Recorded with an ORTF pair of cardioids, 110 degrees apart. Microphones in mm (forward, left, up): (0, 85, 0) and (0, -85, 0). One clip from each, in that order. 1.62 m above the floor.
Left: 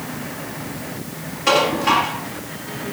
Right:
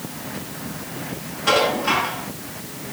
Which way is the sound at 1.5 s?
60° left.